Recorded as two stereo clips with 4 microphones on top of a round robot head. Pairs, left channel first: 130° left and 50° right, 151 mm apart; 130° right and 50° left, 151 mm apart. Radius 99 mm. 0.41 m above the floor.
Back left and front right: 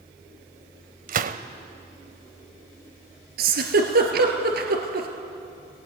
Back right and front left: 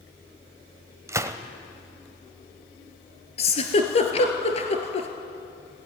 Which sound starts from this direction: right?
A giggle, at 3.4 s.